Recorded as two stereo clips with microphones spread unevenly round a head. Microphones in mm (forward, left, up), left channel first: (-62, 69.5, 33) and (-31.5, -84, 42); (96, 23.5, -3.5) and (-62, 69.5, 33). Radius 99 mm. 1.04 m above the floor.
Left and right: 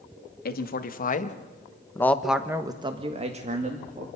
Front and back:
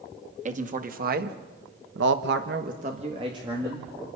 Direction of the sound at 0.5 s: 115° left.